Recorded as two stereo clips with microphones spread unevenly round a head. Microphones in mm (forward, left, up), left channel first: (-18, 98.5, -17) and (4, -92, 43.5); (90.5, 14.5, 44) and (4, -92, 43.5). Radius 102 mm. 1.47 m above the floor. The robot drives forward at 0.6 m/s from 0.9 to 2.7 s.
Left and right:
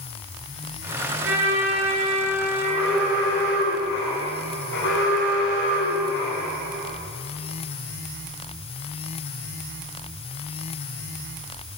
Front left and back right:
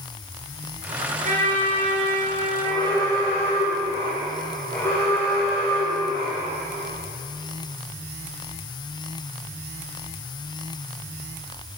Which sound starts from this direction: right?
A trumpet, at 1.2 s.